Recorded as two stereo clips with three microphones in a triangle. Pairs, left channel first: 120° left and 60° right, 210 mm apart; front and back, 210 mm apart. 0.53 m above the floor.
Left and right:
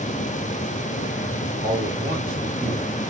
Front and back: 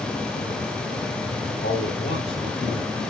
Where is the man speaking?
30° right, 2.5 m.